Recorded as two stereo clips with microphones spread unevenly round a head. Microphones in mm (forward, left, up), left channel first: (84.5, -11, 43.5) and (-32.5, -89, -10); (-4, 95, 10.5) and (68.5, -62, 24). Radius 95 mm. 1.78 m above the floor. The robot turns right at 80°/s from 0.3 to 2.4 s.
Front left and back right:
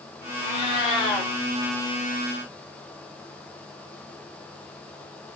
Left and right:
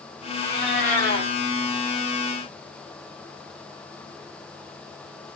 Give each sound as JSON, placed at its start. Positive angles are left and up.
{"t": 0.4, "sound": "a cat meowing", "azimuth_deg": 35, "distance_m": 2.5}